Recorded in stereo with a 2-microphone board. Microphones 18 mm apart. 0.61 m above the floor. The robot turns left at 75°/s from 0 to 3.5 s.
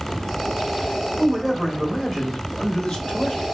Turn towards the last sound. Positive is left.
turn(degrees=45)